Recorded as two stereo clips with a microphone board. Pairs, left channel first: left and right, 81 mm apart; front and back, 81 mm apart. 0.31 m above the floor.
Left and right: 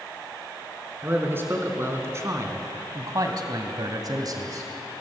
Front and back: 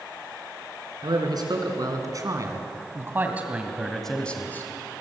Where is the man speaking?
150° right, 4.5 m; by 4.7 s 55° right, 2 m.